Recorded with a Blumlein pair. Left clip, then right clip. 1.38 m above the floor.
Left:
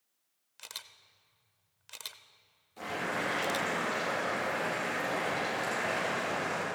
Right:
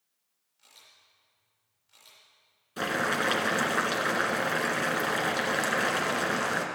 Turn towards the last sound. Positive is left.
turn(degrees=-55)